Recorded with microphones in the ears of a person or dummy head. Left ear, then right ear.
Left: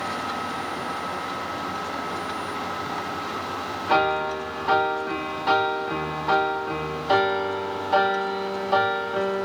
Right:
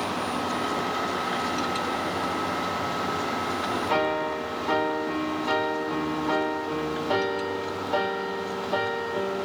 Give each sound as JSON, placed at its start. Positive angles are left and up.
{"t": 3.9, "sound": "a piano", "side_deg": 55, "distance_m": 2.0}